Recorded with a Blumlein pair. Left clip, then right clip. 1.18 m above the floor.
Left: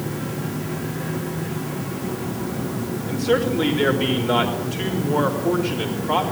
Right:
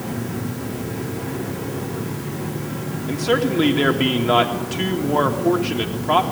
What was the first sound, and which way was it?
A man speaking, 25° right.